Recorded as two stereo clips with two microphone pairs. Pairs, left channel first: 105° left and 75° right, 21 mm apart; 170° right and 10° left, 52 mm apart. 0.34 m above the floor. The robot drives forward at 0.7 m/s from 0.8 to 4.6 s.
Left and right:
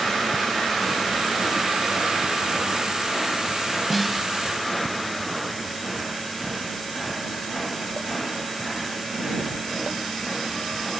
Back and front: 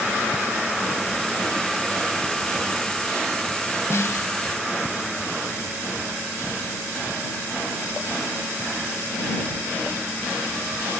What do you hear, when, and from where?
3.9 s a snare drum: 155° right, 0.7 m; by 4.3 s 165° right, 1.0 m